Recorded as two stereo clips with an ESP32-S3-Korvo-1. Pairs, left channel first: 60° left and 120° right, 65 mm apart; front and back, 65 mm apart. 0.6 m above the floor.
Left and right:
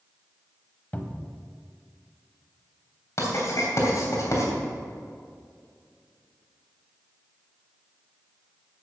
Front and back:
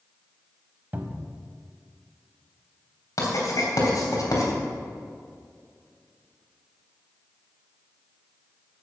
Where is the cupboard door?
125° left, 1.0 m.